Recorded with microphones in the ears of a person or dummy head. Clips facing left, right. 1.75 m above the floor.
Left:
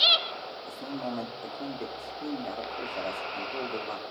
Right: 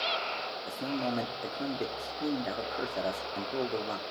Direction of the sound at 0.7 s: 25° right (ahead or behind).